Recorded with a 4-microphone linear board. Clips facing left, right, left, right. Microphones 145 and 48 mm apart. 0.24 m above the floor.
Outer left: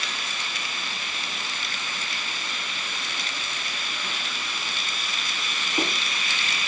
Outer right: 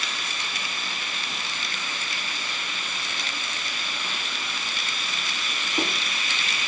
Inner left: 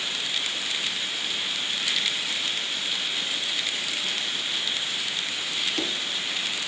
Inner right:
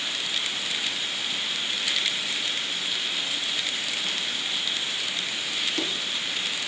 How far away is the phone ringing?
No phone ringing in this recording.